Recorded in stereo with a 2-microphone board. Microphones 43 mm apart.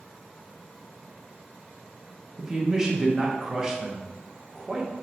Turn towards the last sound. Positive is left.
turn(degrees=-15)  # may be behind; listen again after turning